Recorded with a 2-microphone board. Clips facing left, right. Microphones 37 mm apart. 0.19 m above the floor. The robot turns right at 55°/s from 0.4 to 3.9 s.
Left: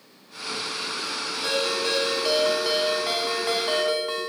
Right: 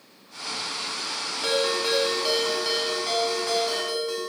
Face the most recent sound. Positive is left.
turn(degrees=80)